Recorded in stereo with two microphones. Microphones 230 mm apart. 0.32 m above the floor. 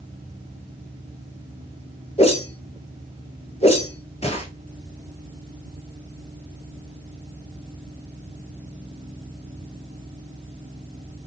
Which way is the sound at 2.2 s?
25° left (ahead or behind).